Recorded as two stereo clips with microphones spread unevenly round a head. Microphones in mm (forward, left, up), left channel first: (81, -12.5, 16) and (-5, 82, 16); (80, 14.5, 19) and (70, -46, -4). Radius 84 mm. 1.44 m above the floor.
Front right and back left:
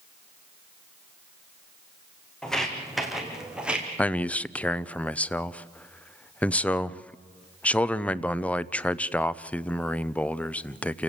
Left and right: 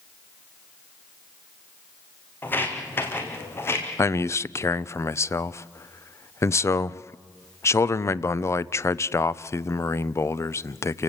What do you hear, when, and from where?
2.4 s footsteps: 35° left, 4 m; by 3.9 s 50° left, 3.5 m
4.0 s a man speaking: 35° left, 0.7 m